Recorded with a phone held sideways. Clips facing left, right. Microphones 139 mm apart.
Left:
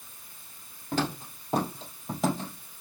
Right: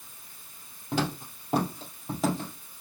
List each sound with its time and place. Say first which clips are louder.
0.9 s footsteps: even; 10° right (ahead or behind), 2.5 m; by 2.5 s centre (ahead or behind), 3 m